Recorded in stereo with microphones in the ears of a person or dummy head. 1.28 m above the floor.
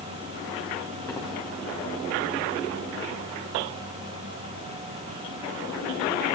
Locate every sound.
1.1 s footsteps: 20° left (ahead or behind), 6.5 m